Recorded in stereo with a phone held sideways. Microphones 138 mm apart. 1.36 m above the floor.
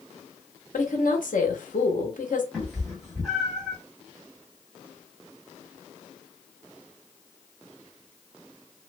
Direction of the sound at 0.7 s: 75° left (ahead or behind).